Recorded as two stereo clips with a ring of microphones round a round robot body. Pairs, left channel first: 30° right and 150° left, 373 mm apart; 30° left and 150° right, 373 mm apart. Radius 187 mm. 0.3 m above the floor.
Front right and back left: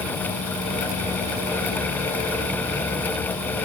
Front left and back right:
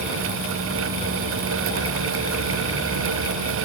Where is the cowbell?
No cowbell in this recording.